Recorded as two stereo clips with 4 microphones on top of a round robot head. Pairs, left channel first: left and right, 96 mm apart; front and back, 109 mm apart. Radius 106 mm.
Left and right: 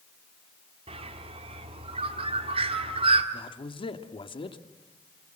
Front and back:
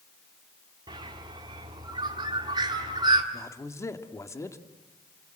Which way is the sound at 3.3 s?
65° left.